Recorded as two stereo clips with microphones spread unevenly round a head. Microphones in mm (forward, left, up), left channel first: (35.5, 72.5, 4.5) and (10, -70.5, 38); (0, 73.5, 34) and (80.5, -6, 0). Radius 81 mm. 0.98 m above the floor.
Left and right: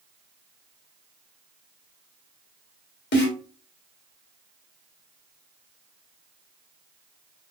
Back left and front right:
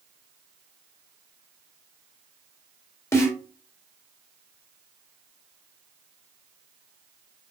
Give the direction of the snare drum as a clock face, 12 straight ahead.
10 o'clock.